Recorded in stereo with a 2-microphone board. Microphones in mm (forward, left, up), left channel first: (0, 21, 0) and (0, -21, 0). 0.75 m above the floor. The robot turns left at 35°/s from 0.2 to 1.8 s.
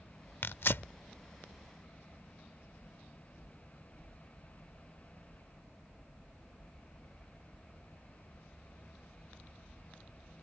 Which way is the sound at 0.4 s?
55° left (ahead or behind).